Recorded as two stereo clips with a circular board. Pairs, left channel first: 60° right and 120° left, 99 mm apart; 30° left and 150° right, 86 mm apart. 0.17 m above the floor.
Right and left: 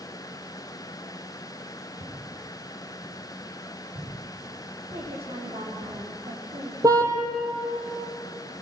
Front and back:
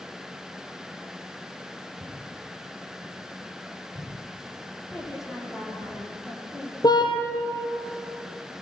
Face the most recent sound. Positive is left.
turn(degrees=65)